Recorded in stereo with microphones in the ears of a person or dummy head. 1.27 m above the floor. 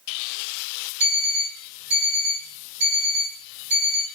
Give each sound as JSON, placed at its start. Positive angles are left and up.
{"t": 1.0, "sound": "an alarm clock", "side_deg": -50, "distance_m": 2.0}